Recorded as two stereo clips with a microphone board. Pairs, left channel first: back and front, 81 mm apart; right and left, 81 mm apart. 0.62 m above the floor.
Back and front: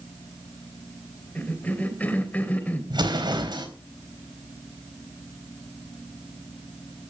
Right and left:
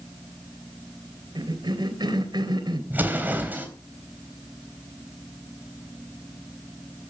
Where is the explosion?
20° left, 3.5 m.